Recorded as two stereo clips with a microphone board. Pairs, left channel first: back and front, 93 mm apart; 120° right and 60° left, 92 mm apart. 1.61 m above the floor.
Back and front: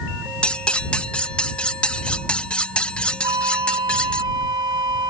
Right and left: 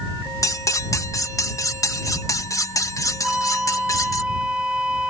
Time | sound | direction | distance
0.4 | cutlery clinking | 110° right | ?
3.2 | a flute | 20° right | ?